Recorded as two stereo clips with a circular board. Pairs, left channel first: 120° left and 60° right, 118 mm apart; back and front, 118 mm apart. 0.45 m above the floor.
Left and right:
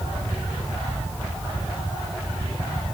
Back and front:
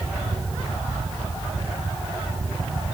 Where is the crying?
I don't hear crying.